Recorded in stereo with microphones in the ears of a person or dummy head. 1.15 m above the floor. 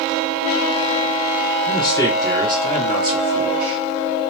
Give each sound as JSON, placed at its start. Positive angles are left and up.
{"t": 1.7, "sound": "a man speaking", "side_deg": 30, "distance_m": 0.8}